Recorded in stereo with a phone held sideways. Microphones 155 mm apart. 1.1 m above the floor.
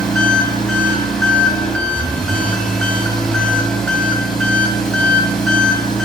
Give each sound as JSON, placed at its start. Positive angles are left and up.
{"t": 0.0, "sound": "an engine running", "side_deg": 5, "distance_m": 4.0}